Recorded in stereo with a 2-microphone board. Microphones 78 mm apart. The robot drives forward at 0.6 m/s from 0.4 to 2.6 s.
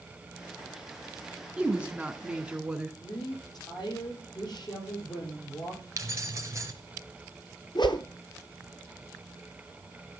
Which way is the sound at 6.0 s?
35° right (ahead or behind).